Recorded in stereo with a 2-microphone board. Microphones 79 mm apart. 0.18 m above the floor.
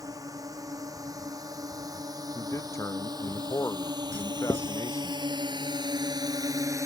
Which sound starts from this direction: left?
A man speaking, at 2.4 s.